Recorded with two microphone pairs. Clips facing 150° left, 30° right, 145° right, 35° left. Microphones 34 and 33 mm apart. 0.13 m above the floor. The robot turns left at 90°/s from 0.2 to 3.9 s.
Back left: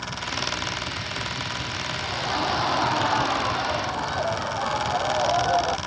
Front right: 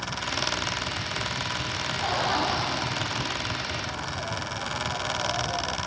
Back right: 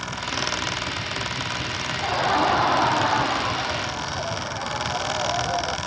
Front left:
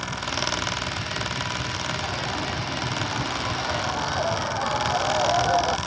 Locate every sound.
2.0 s laughter: 85° right; by 5.8 s 105° left